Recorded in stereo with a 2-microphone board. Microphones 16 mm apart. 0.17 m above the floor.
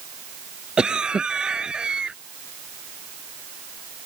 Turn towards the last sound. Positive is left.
turn(degrees=-65)  # may be behind; listen again after turning